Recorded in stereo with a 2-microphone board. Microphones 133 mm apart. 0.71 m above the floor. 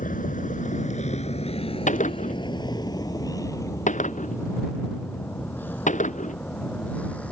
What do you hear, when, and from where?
0.0 s a vehicle: 85° left; by 7.3 s 10° left (ahead or behind)
1.9 s a gunshot: 65° left (ahead or behind)